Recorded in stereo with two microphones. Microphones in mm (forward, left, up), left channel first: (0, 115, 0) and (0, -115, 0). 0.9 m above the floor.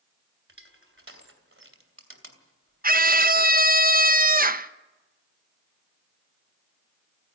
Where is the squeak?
No squeak in this recording.